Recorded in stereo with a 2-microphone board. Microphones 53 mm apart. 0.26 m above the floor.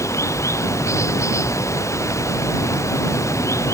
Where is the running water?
70° left (ahead or behind).